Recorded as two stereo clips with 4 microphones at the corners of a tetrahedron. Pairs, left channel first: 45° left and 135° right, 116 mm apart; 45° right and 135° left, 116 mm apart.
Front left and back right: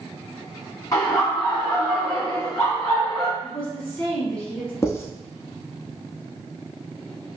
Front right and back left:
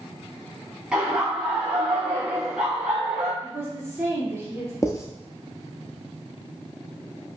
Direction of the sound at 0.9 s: 60° left.